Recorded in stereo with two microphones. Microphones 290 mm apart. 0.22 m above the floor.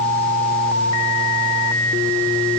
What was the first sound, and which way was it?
Only background noise.